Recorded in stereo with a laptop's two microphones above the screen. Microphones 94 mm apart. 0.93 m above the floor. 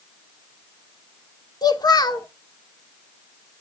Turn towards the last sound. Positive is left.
turn(degrees=45)  # may be behind; listen again after turning